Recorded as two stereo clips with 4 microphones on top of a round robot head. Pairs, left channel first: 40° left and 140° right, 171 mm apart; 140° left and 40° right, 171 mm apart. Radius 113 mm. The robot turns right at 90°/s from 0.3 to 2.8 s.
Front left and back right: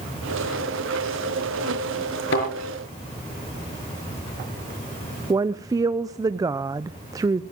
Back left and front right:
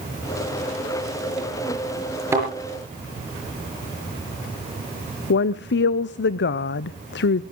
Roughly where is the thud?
Ahead left.